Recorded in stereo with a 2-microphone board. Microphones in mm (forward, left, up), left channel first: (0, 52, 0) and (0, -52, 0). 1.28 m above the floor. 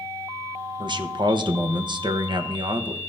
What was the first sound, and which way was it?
A man speaking, 50° right (ahead or behind).